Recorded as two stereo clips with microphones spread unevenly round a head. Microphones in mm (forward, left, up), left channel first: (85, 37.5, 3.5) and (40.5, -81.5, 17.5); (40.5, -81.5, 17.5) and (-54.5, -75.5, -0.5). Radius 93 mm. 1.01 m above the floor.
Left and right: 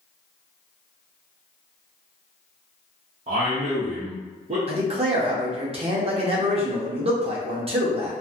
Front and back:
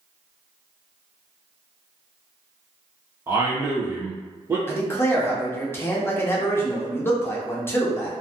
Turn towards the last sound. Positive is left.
turn(degrees=-75)